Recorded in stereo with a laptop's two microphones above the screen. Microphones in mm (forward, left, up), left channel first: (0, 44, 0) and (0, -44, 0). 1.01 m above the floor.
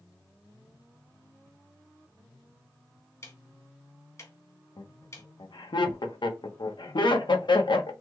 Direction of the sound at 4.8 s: 65° left (ahead or behind).